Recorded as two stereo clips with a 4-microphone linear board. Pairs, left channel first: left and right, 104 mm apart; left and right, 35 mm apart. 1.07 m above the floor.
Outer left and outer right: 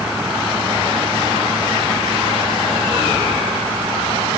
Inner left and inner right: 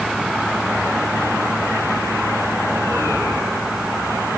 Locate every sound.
Only background noise.